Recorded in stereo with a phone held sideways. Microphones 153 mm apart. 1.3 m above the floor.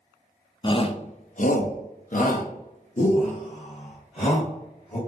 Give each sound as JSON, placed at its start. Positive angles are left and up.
{"t": 0.6, "sound": "a shout", "side_deg": 30, "distance_m": 0.7}